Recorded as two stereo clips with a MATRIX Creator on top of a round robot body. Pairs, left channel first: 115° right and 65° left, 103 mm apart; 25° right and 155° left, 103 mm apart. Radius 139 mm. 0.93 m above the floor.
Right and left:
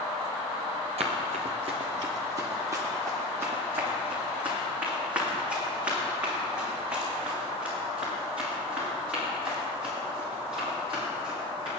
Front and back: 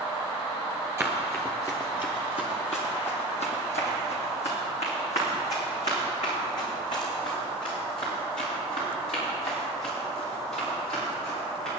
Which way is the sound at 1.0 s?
90° left.